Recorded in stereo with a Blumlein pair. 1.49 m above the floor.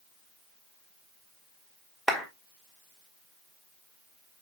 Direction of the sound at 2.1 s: 10° right.